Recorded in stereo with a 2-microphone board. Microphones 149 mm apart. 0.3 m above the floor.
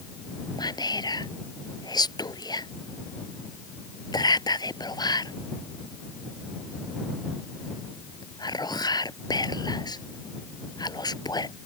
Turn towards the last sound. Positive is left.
turn(degrees=25)  # may be behind; listen again after turning